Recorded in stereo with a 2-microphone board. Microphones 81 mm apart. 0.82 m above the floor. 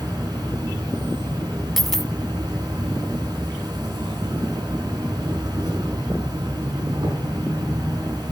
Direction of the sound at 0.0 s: 55° right (ahead or behind).